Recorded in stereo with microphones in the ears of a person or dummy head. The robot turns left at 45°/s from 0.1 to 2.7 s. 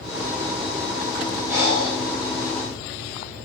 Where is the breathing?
20° right (ahead or behind), 2.5 m; by 2.0 s 40° right (ahead or behind), 2.5 m.